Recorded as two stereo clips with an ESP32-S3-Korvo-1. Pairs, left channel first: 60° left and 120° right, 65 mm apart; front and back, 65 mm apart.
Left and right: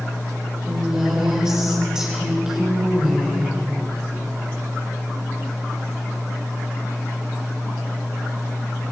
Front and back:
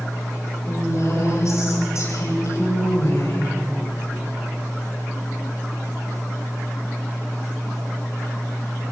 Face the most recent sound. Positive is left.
turn(degrees=-40)